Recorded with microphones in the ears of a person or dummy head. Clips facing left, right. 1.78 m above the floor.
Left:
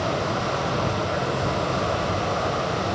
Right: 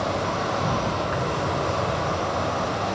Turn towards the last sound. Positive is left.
turn(degrees=-75)  # may be behind; listen again after turning